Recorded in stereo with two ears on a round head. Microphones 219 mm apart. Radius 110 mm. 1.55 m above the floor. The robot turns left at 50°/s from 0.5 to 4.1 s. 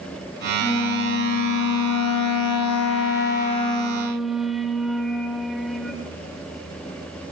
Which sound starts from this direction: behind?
A flute, at 0.6 s.